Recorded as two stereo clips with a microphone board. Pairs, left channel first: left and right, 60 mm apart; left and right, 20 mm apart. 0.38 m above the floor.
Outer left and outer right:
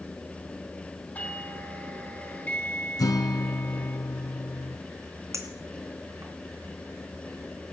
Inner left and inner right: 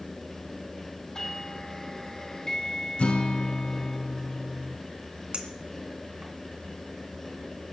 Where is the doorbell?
25° left (ahead or behind), 1.5 m.